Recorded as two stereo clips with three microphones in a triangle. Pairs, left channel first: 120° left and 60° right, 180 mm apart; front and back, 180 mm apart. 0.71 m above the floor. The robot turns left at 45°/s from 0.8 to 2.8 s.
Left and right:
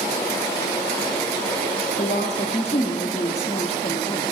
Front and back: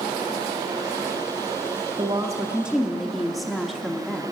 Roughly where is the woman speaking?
Behind left.